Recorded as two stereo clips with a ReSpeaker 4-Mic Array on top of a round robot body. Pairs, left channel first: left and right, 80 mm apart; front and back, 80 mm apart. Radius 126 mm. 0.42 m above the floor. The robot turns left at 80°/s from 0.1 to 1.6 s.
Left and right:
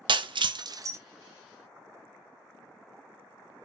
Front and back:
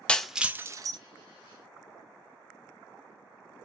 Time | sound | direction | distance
0.1 | breaking glass | 75° right | 0.5 m